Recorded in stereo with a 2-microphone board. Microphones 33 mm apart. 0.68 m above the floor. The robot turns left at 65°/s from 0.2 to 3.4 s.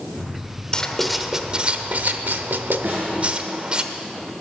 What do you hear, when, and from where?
0.7 s writing: 25° left (ahead or behind), 0.9 m; by 3.8 s 30° right (ahead or behind), 0.9 m
2.8 s a snare drum: 65° right (ahead or behind), 5.5 m; by 3.1 s 45° right (ahead or behind), 5.5 m